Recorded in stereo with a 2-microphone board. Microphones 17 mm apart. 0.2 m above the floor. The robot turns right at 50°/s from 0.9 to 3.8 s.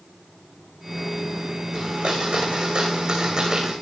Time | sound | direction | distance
1.7 | a blender | 120° right | 6 m